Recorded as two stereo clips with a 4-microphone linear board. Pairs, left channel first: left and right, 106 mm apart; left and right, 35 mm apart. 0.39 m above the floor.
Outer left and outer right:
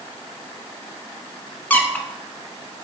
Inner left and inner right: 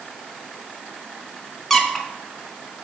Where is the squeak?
15° left (ahead or behind), 0.8 m.